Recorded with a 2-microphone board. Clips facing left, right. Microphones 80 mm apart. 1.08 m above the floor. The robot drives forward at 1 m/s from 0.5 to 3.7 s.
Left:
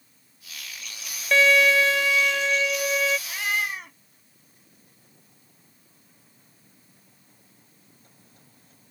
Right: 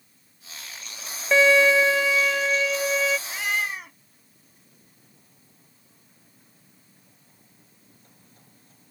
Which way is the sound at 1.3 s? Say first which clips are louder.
Right 2 dB; 15° right (ahead or behind).